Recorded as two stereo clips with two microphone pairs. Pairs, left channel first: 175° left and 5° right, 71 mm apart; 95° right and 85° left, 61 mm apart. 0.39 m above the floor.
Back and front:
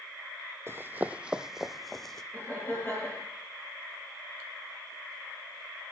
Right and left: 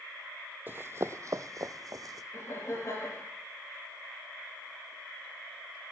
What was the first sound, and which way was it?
Running footsteps, 35° left.